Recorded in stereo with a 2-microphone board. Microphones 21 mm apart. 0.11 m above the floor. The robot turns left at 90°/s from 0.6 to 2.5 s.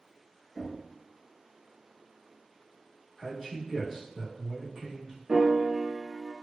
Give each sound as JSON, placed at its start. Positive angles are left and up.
{"t": 0.6, "sound": "knocking", "side_deg": 10, "distance_m": 1.9}
{"t": 3.2, "sound": "a man speaking", "side_deg": -25, "distance_m": 1.1}
{"t": 5.3, "sound": "a piano", "side_deg": -40, "distance_m": 1.0}